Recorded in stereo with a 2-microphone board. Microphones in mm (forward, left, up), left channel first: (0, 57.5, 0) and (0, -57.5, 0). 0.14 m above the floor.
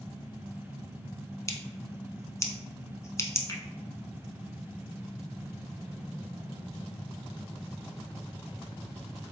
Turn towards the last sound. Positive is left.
turn(degrees=30)  # may be behind; listen again after turning